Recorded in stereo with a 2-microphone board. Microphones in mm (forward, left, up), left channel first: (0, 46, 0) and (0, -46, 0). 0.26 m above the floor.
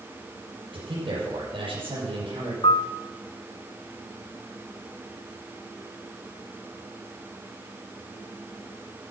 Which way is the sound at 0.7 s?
65° right (ahead or behind).